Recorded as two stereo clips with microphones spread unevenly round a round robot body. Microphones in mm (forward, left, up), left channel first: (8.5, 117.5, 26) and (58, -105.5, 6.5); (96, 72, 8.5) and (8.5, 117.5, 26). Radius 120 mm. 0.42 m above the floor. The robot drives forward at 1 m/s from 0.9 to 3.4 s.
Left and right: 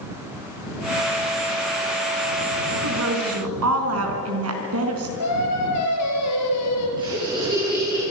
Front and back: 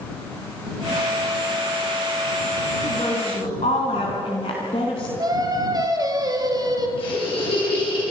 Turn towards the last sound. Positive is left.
turn(degrees=-10)